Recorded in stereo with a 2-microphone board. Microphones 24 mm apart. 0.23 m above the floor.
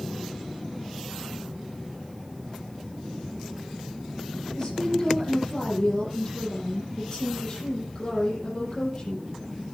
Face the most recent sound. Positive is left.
turn(degrees=35)  # may be behind; listen again after turning